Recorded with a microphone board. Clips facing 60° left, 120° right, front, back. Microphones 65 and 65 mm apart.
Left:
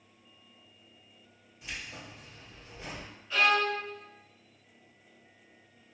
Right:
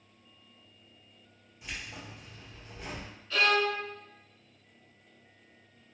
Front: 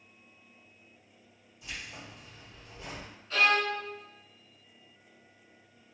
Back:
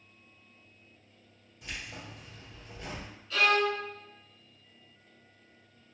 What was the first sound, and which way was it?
Keys jangling, 155° left.